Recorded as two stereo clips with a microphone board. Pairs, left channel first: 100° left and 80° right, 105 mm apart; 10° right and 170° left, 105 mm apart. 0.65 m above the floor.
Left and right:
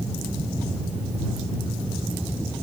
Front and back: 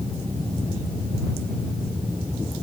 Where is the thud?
No thud in this recording.